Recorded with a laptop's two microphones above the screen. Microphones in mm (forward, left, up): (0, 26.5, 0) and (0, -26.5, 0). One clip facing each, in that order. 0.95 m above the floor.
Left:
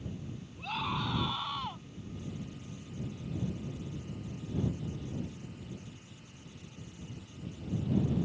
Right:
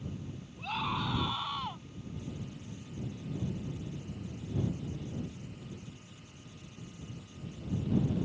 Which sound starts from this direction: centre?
A scream, at 0.6 s.